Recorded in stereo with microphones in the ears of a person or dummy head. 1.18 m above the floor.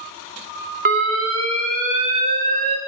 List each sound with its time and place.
0.8 s an alarm: 40° right (ahead or behind), 1.2 m